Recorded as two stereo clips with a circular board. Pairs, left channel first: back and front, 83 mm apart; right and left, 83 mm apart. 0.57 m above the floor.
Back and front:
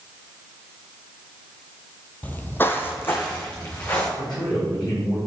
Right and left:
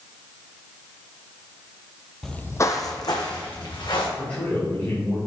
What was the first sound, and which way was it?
Footsteps, 170° right.